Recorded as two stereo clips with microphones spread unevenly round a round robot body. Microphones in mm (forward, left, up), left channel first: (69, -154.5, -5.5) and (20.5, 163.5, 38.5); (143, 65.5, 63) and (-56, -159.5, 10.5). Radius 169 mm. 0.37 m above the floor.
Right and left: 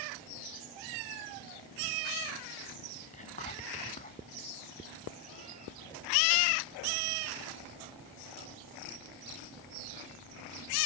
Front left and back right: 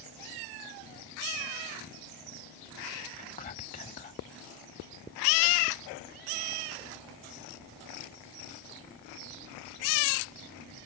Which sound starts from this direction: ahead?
Whispering, at 3.1 s.